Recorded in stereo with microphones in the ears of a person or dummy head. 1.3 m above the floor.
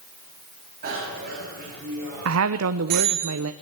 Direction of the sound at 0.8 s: 45° right (ahead or behind).